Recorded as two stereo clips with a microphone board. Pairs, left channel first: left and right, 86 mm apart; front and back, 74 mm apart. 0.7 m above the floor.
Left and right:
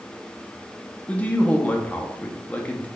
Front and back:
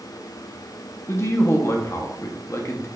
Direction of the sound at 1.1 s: 30° left.